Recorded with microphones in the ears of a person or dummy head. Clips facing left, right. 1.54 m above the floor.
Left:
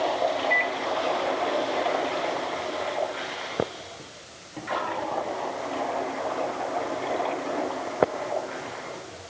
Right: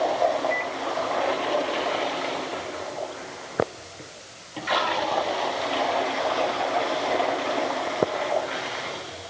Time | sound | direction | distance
0.5 | a microwave | 55° left (ahead or behind) | ?